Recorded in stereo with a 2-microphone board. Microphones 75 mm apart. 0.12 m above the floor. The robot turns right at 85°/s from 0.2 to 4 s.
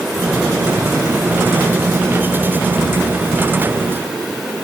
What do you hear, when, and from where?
Only background noise.